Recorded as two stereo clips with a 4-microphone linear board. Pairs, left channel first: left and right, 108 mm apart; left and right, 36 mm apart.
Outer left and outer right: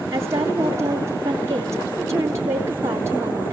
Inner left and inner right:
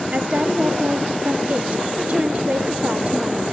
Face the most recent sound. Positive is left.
turn(degrees=-25)  # may be behind; listen again after turning